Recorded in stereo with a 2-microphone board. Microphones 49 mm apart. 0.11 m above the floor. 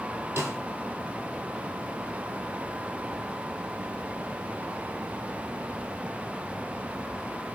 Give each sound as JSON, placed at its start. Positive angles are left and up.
{"t": 0.4, "sound": "a snare drum", "side_deg": -55, "distance_m": 1.2}